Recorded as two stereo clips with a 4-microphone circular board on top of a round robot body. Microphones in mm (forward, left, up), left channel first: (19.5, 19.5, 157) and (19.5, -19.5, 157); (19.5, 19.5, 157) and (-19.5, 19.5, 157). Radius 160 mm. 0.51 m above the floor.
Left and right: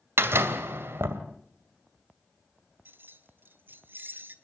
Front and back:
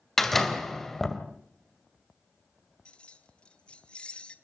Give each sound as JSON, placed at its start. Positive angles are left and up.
{"t": 0.2, "sound": "a door slam", "azimuth_deg": -85, "distance_m": 2.5}
{"t": 2.9, "sound": "keys jangling", "azimuth_deg": -60, "distance_m": 1.8}